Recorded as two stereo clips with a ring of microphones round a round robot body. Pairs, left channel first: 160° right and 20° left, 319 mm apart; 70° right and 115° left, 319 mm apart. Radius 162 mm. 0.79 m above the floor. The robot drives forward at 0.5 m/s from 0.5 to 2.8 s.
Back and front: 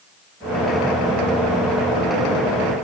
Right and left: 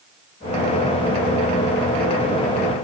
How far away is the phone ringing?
I don't hear a phone ringing.